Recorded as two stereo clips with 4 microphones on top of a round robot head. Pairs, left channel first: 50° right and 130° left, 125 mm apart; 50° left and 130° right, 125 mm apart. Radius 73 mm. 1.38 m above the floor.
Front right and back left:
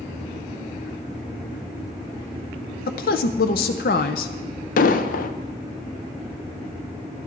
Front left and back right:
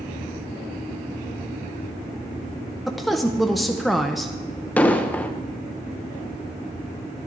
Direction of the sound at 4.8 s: 30° right.